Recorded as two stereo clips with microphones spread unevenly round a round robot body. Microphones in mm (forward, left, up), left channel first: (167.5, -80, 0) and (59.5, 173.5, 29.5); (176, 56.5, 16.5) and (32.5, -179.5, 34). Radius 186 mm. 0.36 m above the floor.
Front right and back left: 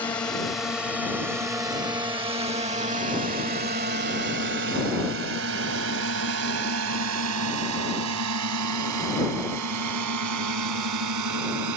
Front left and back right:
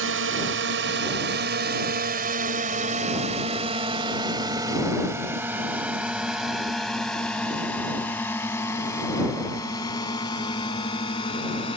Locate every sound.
0.0 s a drone: 145° right; by 11.8 s 135° left